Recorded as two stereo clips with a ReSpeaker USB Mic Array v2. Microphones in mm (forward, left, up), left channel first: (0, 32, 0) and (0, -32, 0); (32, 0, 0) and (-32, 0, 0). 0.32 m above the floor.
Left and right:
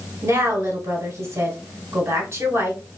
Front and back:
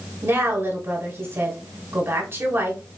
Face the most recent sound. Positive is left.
turn(degrees=-135)